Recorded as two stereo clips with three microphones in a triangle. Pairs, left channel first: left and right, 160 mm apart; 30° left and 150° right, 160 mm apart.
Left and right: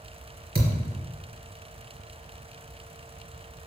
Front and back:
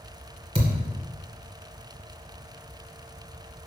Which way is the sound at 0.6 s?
100° right.